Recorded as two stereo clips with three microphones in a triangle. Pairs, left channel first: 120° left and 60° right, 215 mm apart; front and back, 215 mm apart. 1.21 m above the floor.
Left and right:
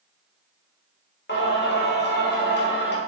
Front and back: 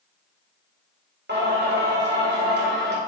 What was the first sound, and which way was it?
Singing, 150° left.